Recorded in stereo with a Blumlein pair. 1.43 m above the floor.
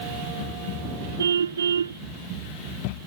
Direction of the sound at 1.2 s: 70° right.